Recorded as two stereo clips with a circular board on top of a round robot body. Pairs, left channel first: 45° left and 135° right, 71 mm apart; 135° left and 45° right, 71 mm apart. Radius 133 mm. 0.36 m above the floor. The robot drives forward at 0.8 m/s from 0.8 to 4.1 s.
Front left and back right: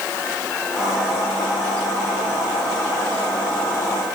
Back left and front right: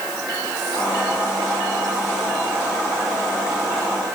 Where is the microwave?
No microwave in this recording.